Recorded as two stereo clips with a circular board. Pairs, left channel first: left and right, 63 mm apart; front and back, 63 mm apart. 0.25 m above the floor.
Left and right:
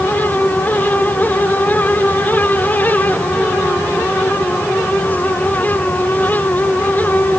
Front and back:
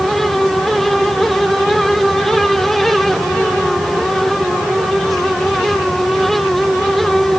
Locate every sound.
Only background noise.